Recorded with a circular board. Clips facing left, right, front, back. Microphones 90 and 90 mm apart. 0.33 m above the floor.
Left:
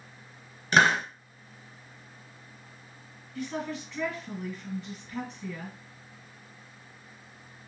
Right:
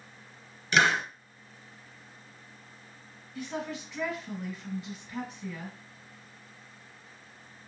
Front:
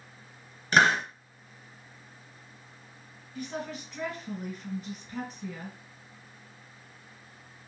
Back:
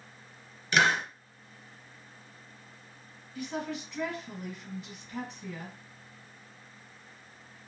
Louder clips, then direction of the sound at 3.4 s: Left 2 dB, back 1 dB; 10° right.